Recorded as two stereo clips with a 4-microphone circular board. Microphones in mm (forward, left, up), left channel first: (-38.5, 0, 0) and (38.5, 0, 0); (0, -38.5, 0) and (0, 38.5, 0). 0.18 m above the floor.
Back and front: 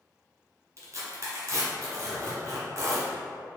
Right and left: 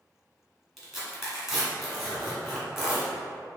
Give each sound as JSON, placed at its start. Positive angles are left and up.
{"t": 0.8, "sound": "tearing paper", "azimuth_deg": 5, "distance_m": 1.7}